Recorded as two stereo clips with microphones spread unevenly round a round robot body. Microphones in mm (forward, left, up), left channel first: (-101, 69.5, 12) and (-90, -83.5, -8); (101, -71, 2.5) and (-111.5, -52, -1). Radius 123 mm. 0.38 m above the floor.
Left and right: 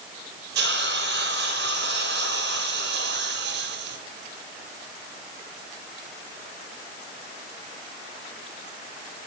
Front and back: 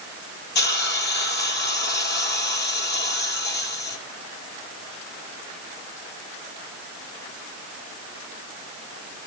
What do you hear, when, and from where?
0.6 s a hiss: 45° right, 1.7 m